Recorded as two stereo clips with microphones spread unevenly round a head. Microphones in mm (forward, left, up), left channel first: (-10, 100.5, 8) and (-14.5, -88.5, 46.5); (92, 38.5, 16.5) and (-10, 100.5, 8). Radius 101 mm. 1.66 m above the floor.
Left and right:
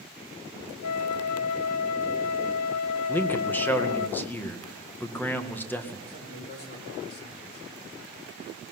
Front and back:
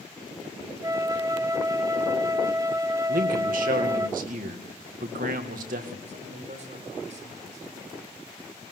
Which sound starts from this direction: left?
A flute, at 0.8 s.